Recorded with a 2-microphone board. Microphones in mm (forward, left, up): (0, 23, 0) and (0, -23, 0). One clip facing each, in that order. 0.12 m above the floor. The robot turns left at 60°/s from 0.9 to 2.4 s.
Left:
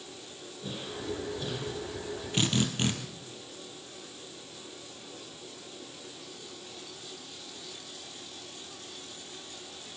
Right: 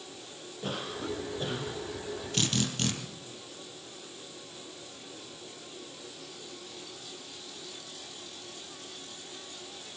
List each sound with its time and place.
0.6 s a cough: 110° right, 5 m; by 1.8 s 165° right, 5 m
2.3 s a drill: 15° left (ahead or behind), 3.5 m; by 2.9 s 20° left (ahead or behind), 3.5 m